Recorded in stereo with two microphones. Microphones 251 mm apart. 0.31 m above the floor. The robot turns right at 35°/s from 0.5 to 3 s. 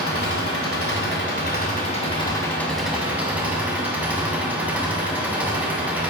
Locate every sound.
0.0 s an engine running: 100° left, 1.5 m; by 6.1 s 175° right, 1.5 m